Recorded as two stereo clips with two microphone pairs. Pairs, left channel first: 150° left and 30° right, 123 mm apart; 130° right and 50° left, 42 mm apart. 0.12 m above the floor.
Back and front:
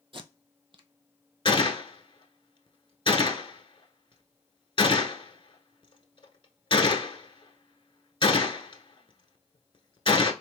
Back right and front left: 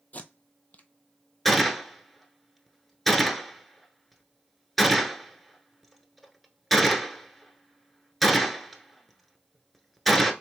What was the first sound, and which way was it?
Tape being pulled, 75° right.